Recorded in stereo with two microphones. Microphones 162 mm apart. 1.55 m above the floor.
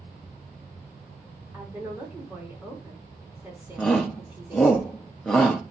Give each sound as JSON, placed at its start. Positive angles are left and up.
{"t": 1.5, "sound": "a woman speaking", "side_deg": -10, "distance_m": 3.5}
{"t": 3.8, "sound": "a shout", "side_deg": 5, "distance_m": 1.2}